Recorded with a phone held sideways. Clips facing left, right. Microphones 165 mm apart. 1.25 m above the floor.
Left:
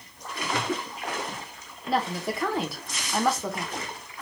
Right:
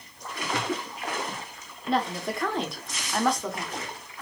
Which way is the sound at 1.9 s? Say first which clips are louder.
Even; 5° left (ahead or behind).